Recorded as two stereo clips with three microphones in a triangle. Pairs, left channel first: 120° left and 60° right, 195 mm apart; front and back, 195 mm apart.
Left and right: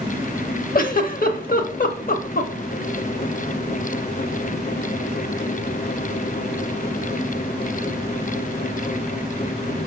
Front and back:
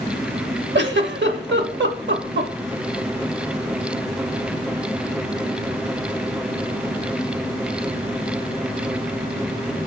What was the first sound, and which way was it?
A giggle, 165° left.